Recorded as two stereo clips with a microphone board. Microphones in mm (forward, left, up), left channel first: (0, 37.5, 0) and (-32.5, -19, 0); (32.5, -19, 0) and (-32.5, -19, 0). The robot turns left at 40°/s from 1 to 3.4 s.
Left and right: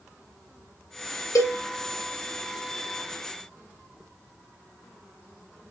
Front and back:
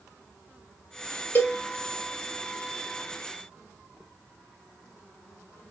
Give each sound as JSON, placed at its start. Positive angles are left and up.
{"t": 1.4, "sound": "a cowbell", "azimuth_deg": 45, "distance_m": 1.0}